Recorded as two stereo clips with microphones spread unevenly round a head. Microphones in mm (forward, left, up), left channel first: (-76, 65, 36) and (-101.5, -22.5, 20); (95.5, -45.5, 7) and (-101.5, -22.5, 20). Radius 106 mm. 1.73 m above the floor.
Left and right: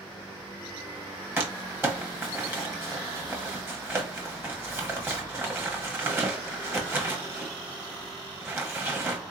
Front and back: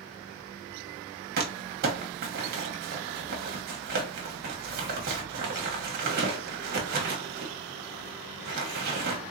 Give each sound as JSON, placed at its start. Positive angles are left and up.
{"t": 1.4, "sound": "crumpling", "azimuth_deg": -175, "distance_m": 1.2}